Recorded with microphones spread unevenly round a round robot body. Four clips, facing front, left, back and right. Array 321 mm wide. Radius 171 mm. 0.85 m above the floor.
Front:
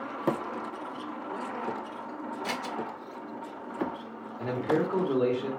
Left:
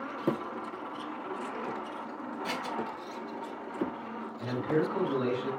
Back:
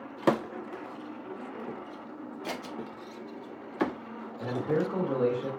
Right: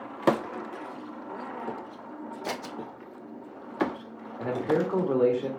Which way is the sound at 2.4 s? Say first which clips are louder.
Right 1 dB, front 2 dB; 75° right.